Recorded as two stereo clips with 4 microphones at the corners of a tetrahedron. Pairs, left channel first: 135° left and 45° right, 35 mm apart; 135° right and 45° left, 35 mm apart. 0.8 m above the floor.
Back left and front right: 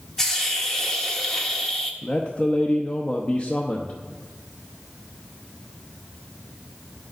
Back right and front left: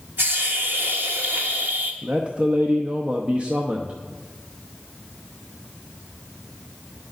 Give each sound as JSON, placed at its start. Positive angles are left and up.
{"t": 0.2, "sound": "a hiss", "azimuth_deg": 55, "distance_m": 1.2}
{"t": 2.0, "sound": "a man speaking", "azimuth_deg": 90, "distance_m": 0.8}